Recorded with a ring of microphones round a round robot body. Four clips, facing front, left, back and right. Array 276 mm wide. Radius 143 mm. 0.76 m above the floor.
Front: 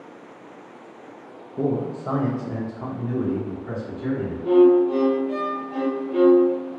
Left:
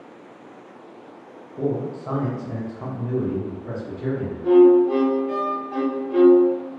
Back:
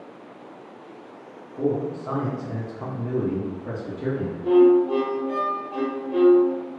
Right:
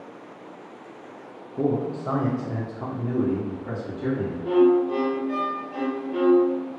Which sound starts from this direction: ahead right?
A man speaking, at 1.6 s.